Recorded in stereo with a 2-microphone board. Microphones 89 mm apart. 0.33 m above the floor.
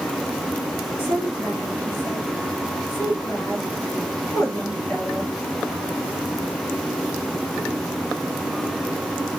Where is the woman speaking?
25° left (ahead or behind), 4 m.